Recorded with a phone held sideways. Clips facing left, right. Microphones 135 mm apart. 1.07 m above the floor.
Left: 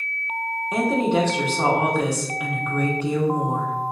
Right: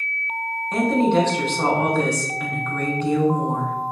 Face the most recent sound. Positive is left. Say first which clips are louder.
# right 2 dB
turn(degrees=10)  # may be behind; listen again after turning